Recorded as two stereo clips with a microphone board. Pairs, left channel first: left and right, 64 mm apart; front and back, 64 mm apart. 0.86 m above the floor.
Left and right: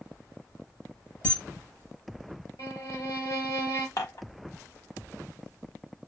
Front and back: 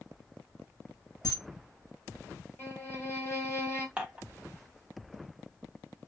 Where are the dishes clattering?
110° left, 0.8 m.